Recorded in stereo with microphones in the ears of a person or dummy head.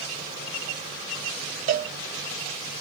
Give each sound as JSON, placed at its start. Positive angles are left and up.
{"t": 1.7, "sound": "a cowbell", "side_deg": -45, "distance_m": 0.6}